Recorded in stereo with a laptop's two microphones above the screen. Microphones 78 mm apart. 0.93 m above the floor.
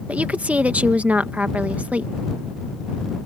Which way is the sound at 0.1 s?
20° right (ahead or behind).